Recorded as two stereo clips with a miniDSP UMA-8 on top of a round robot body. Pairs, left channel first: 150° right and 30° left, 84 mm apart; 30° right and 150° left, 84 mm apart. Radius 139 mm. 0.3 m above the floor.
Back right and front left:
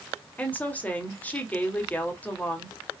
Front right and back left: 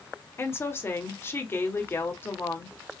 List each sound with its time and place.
0.4 s a woman speaking: 85° right, 1.9 m